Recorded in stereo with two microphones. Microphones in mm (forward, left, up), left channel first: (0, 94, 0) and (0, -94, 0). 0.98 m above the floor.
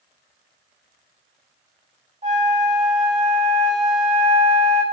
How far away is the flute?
About 0.6 m.